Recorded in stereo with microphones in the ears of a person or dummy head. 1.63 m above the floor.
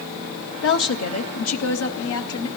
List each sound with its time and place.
0.6 s a woman speaking: 55° left (ahead or behind), 0.9 m; by 2.5 s 80° left, 1.6 m